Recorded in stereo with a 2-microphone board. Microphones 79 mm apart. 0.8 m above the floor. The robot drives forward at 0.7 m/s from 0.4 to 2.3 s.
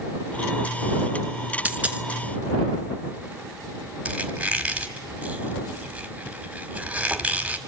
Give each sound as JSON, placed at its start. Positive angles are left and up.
{"t": 1.6, "sound": "a dropped coin", "side_deg": -20, "distance_m": 0.9}
{"t": 4.0, "sound": "a squeak", "side_deg": -15, "distance_m": 1.6}